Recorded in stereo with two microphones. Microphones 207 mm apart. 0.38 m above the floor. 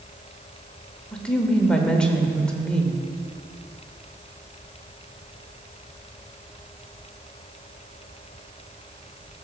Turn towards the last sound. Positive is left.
turn(degrees=5)  # may be behind; listen again after turning